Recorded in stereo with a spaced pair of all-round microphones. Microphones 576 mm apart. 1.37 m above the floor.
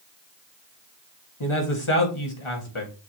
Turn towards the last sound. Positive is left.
turn(degrees=55)  # may be behind; listen again after turning